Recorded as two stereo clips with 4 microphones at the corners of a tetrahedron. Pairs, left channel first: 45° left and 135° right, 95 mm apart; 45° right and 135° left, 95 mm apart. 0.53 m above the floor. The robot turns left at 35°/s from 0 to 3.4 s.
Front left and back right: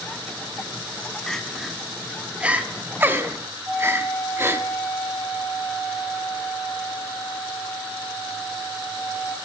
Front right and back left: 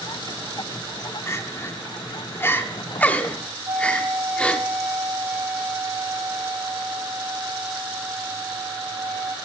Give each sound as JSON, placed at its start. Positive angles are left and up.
{"t": 1.3, "sound": "crying", "azimuth_deg": -35, "distance_m": 0.8}
{"t": 3.6, "sound": "a flute", "azimuth_deg": 160, "distance_m": 8.5}